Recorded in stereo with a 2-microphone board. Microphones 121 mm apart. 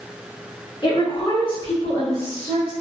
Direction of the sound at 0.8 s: 35° left (ahead or behind).